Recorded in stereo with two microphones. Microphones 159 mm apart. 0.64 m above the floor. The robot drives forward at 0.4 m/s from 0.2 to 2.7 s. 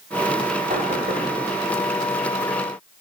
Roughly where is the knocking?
Right.